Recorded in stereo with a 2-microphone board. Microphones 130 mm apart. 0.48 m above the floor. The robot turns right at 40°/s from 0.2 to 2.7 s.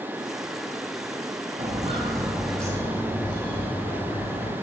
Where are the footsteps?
60° right (ahead or behind), 0.8 m; by 4.5 s 55° left (ahead or behind), 1.6 m.